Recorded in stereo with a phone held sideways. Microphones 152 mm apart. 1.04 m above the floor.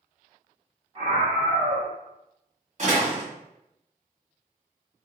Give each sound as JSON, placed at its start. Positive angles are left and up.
{"t": 0.9, "sound": "a scream", "side_deg": -40, "distance_m": 1.5}
{"t": 2.8, "sound": "a door slam", "side_deg": -50, "distance_m": 1.3}